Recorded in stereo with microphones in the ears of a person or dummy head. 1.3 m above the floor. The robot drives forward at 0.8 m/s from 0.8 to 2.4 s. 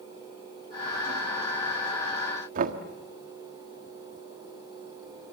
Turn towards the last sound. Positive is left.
turn(degrees=-45)  # may be behind; listen again after turning